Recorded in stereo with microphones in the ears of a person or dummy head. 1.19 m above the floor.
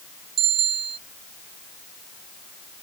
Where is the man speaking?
I don't hear a man speaking.